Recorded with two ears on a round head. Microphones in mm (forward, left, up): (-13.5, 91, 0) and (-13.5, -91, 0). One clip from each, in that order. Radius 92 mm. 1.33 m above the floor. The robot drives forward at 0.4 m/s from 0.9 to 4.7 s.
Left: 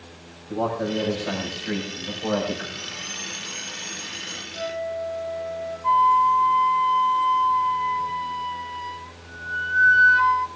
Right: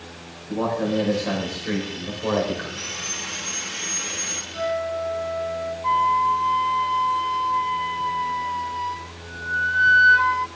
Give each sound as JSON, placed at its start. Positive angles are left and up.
{"t": 0.5, "sound": "a man speaking", "side_deg": -25, "distance_m": 5.5}
{"t": 2.8, "sound": "sawing", "side_deg": -80, "distance_m": 3.0}
{"t": 4.5, "sound": "a flute", "side_deg": -50, "distance_m": 9.0}
{"t": 5.8, "sound": "a flute", "side_deg": -5, "distance_m": 0.9}